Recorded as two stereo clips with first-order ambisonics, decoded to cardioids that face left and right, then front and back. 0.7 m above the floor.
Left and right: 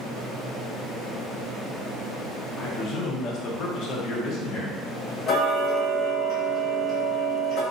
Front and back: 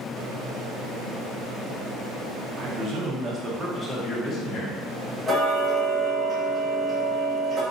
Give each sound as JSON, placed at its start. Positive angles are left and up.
{"t": 2.6, "sound": "a man speaking", "azimuth_deg": 155, "distance_m": 0.9}
{"t": 5.3, "sound": "ticking", "azimuth_deg": 110, "distance_m": 1.2}